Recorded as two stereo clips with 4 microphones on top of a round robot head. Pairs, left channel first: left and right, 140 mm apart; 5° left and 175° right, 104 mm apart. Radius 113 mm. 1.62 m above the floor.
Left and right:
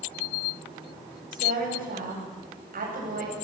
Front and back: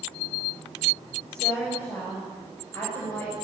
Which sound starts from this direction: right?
A woman speaking, at 1.3 s.